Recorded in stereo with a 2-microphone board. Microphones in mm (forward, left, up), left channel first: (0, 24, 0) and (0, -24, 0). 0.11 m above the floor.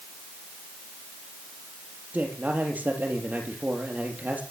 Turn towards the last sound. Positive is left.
turn(degrees=-40)  # may be behind; listen again after turning